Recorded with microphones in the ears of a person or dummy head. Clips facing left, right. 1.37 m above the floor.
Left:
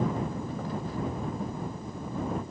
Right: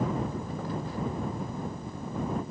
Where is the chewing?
I don't hear chewing.